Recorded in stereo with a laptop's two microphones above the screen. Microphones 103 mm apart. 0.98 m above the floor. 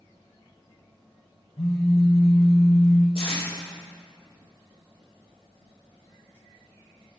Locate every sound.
1.6 s a phone buzzing: 70° left (ahead or behind), 4 m
3.1 s tape being pulled: 75° left (ahead or behind), 4 m